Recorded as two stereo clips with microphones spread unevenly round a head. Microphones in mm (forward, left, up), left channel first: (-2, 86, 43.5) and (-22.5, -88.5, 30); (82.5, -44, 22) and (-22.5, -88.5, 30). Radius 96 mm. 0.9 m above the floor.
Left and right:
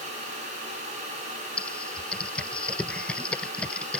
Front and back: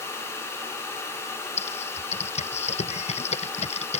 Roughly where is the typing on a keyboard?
Ahead.